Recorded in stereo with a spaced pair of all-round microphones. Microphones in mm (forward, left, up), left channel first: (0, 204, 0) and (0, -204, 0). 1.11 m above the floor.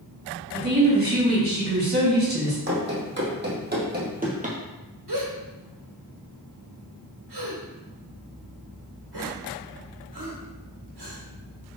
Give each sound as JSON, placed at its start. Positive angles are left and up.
{"t": 0.5, "sound": "a woman speaking", "side_deg": -20, "distance_m": 3.0}
{"t": 2.7, "sound": "running footsteps", "side_deg": -30, "distance_m": 3.0}
{"t": 5.1, "sound": "a gasp", "side_deg": -65, "distance_m": 1.4}